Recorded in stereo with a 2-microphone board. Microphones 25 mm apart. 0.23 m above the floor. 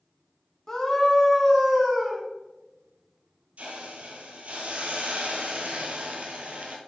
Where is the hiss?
80° right, 1.6 m.